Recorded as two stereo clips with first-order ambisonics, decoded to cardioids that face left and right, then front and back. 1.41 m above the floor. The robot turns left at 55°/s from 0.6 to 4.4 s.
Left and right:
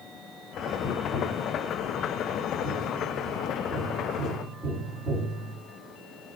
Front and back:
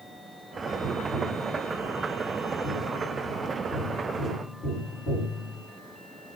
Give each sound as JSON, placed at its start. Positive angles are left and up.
{"t": 0.8, "sound": "tapping", "azimuth_deg": 175, "distance_m": 1.3}